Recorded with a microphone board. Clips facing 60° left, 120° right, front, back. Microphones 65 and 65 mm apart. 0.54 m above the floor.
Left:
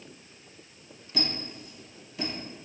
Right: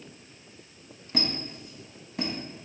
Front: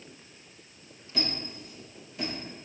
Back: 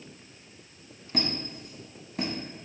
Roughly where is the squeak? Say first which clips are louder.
Right 2 dB, back 2 dB; behind.